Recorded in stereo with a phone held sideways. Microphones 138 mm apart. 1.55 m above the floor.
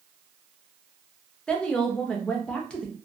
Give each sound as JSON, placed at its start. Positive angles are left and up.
{"t": 1.5, "sound": "a woman speaking", "side_deg": 5, "distance_m": 0.6}